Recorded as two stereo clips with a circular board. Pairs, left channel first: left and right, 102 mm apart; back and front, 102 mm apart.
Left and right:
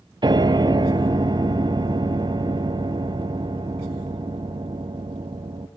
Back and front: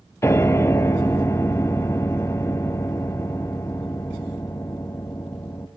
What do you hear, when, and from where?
0.2 s a piano: 120° right, 0.6 m